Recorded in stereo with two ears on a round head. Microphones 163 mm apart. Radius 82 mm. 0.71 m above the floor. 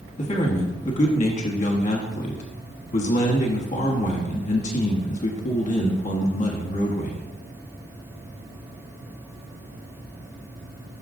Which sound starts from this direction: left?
A man speaking, at 0.2 s.